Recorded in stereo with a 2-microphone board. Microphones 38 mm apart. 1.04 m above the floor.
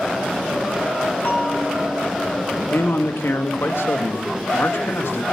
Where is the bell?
50° left (ahead or behind), 5 m.